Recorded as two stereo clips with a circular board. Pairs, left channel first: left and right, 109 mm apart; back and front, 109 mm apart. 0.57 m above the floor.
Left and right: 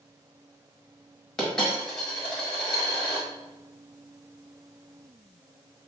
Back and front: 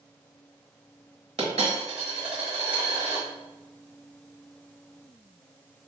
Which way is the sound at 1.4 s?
5° left.